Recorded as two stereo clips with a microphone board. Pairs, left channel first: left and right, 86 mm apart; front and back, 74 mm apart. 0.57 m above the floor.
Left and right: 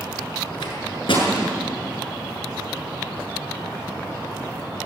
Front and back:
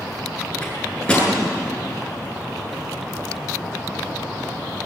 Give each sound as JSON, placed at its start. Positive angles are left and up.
{"t": 0.6, "sound": "a microwave", "azimuth_deg": 75, "distance_m": 8.0}